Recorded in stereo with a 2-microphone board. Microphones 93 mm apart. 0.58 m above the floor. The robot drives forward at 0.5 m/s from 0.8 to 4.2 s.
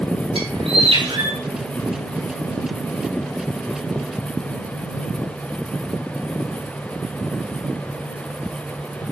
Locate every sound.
0.3 s a bird: 80° right, 5 m